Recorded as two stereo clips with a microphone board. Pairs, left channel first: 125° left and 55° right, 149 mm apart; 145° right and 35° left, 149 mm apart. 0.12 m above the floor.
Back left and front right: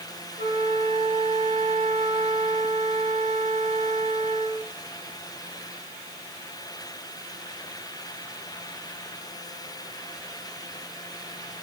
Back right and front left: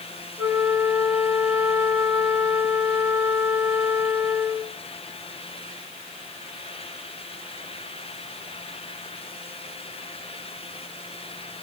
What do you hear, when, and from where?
0.4 s a flute: 40° right, 2.5 m